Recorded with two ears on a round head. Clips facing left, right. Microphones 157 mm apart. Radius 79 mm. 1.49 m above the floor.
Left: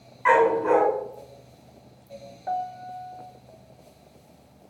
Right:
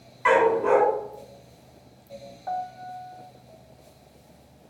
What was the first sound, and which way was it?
A dog barking, 45° right (ahead or behind).